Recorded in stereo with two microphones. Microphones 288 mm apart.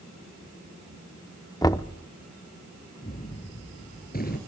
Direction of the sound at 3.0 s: 30° left (ahead or behind).